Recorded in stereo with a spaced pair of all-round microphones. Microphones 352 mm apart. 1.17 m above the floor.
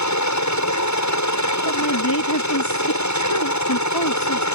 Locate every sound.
0.0 s a helicopter: 55° left (ahead or behind)
1.6 s a woman speaking: 75° left (ahead or behind)